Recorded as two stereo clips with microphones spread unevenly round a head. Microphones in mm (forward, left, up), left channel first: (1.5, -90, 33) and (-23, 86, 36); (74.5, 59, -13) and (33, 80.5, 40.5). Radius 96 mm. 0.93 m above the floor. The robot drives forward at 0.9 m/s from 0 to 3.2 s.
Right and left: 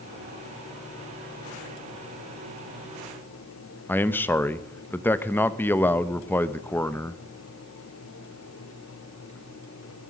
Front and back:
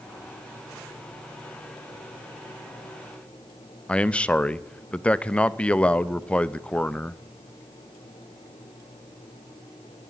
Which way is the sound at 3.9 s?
5° right.